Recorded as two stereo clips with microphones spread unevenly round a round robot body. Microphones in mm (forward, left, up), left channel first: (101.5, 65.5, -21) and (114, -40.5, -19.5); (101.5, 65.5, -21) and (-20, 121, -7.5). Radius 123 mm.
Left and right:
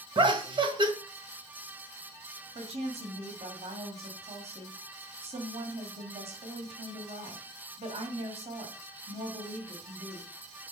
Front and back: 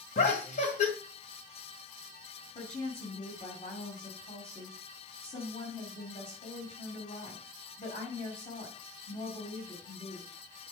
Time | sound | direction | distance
0.1 | laughter | 50° right | 1.8 m
2.5 | a woman speaking | 85° right | 2.5 m